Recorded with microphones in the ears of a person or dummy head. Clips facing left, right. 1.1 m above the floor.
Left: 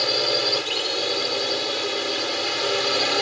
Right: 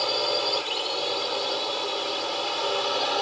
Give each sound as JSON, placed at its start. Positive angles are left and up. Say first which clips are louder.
{"t": 0.0, "sound": "a drone", "louder": "left 2 dB", "side_deg": 20}